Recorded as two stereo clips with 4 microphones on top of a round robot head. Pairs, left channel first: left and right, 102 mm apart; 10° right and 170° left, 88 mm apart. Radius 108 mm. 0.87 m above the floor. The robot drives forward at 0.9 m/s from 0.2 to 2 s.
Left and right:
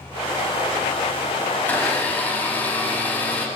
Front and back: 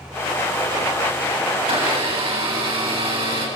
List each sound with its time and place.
1.6 s a blender: 165° left, 7.5 m